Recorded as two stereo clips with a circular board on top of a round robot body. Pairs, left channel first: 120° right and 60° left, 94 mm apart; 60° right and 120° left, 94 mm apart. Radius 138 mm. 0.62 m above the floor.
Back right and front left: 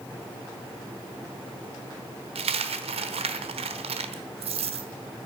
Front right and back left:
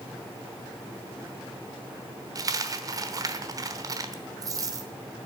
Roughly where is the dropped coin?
Ahead left.